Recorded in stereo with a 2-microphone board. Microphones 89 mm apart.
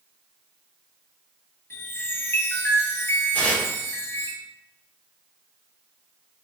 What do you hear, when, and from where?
1.7 s a chime: 30° left (ahead or behind), 0.7 m
3.3 s tearing paper: 20° left (ahead or behind), 1.5 m